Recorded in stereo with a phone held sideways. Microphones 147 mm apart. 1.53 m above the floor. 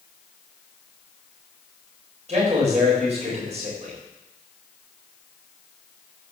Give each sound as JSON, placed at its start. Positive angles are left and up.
{"t": 2.3, "sound": "a man speaking", "side_deg": -50, "distance_m": 7.0}